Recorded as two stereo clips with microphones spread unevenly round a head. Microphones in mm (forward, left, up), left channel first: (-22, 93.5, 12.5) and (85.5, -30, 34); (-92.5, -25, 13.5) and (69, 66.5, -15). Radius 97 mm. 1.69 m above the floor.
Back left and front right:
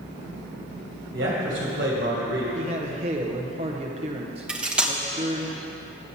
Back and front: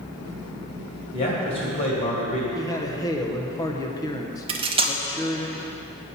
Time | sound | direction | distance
1.1 | a man speaking | 100° right | 2.0 m
2.5 | a man speaking | 90° right | 0.8 m
4.5 | cutlery clinking | straight ahead | 0.8 m